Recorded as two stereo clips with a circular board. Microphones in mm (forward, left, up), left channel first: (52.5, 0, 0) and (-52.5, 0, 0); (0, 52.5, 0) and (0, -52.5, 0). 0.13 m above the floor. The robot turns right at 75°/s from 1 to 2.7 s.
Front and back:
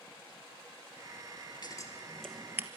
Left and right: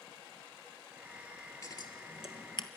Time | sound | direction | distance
1.6 | scissors | 40° left | 1.1 m